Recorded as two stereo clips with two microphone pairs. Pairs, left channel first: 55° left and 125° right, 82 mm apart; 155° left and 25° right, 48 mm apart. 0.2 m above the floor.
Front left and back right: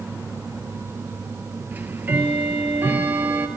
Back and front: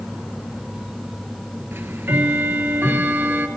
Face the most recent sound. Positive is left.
turn(degrees=-60)